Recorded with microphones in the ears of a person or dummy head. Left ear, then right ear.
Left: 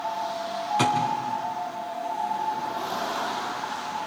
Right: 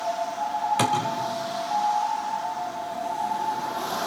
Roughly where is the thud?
Centre.